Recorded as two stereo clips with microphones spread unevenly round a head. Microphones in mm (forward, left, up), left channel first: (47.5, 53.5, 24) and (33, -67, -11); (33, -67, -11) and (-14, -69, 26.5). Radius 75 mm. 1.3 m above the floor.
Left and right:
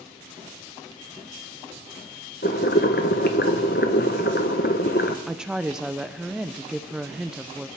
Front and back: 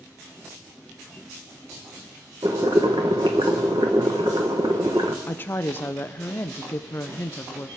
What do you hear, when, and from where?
2.4 s boiling: 120° left, 1.0 m
5.3 s a woman speaking: 15° right, 0.6 m